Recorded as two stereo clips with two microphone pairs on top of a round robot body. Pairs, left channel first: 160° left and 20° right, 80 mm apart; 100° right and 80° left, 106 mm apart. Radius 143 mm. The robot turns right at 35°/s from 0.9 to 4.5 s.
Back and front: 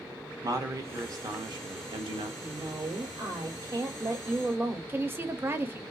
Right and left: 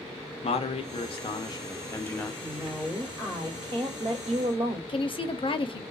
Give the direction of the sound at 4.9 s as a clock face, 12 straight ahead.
3 o'clock.